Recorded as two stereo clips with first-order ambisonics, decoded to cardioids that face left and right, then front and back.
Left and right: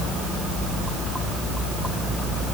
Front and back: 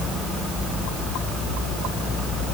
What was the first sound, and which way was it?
Only background noise.